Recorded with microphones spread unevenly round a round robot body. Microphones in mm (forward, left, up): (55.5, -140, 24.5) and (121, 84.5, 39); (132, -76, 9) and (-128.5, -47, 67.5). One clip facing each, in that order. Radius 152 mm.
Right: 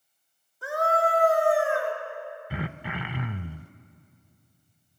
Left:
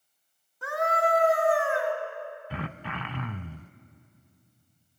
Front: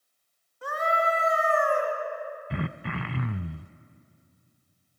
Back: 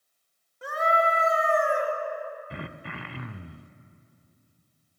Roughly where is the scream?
Left.